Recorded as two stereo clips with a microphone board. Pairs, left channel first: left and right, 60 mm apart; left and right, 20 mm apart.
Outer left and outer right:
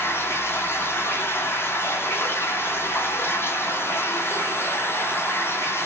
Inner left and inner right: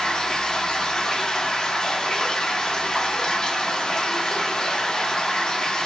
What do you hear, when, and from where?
0.0 s running water: 40° left (ahead or behind), 1.1 m